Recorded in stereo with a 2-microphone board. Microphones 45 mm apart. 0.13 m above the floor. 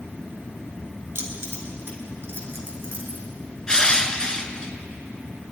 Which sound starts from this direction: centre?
Crushing, at 3.7 s.